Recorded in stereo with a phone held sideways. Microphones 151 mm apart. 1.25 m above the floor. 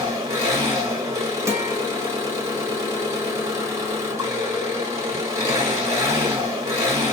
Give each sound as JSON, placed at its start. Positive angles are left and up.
{"t": 0.0, "sound": "an engine running", "side_deg": -20, "distance_m": 1.6}
{"t": 1.5, "sound": "a guitar", "side_deg": -20, "distance_m": 0.9}